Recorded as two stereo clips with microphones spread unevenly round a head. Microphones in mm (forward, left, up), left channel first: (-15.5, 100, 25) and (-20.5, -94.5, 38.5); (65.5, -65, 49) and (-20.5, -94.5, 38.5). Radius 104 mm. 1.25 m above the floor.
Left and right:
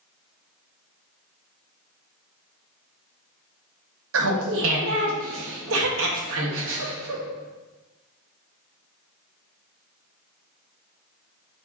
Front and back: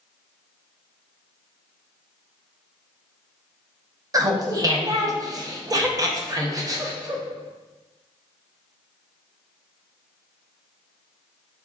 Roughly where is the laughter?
Right.